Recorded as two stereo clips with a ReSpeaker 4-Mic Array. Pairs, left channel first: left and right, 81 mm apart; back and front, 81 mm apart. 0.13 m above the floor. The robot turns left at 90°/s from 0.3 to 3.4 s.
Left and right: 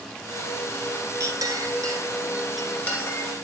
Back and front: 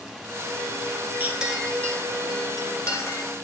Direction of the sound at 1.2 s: 60° right.